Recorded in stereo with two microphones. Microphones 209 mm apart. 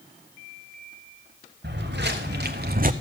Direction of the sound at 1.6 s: 55° right (ahead or behind).